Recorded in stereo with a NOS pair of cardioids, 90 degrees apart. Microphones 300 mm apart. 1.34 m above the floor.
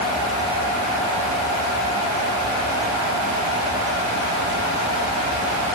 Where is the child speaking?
No child speaking in this recording.